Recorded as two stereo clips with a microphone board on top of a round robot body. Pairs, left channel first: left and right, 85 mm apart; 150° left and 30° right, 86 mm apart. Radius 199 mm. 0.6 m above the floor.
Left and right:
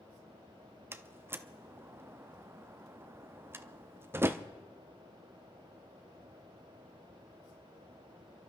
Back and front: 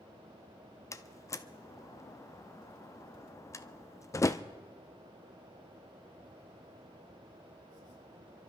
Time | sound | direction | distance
0.9 | a door slam | 155° right | 0.6 m